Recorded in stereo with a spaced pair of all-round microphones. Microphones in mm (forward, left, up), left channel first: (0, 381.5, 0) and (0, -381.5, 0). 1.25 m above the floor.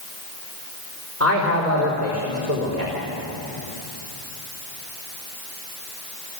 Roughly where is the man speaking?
Centre.